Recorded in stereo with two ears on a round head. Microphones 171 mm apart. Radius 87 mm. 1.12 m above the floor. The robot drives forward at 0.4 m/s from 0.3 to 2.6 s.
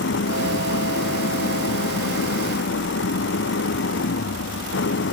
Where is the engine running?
70° left (ahead or behind).